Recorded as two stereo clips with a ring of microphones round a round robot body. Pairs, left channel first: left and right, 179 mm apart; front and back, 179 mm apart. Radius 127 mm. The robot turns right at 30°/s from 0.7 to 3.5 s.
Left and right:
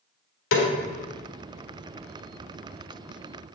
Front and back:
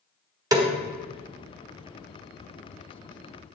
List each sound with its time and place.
0.5 s a snare drum: 110° left, 1.6 m